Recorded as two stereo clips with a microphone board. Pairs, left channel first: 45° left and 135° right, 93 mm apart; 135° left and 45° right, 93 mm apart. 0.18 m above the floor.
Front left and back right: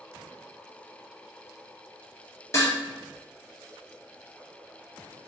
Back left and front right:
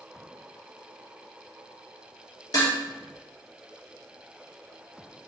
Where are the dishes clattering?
95° left, 1.8 m.